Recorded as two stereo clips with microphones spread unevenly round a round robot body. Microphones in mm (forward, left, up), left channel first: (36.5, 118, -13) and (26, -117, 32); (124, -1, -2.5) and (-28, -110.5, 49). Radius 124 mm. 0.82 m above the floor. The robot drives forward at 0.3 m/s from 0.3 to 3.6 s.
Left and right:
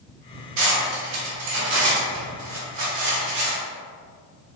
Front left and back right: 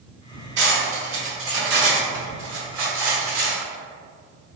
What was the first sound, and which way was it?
Cutlery clinking, 120° right.